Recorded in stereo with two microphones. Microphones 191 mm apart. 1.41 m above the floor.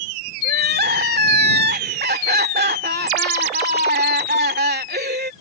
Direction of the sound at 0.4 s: 60° right (ahead or behind).